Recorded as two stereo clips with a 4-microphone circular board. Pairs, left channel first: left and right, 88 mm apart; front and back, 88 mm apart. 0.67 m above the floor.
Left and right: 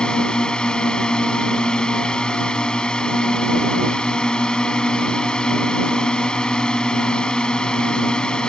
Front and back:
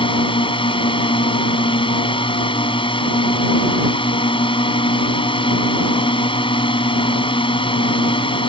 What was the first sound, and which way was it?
A drone, 10° left.